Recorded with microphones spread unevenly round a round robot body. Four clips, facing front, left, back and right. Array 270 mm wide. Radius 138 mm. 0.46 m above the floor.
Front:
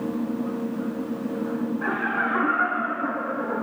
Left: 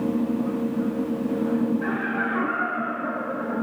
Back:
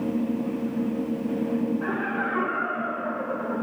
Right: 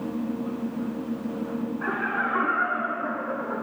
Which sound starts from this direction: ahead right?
Laughter, at 1.8 s.